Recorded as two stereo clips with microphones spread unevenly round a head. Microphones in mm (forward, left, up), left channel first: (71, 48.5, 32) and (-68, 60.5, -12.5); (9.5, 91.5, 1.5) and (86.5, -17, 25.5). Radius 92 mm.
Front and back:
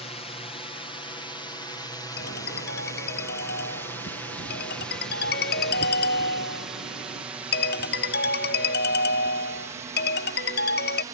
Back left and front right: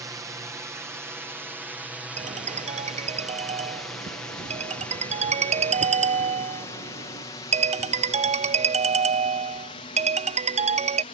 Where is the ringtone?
20° right.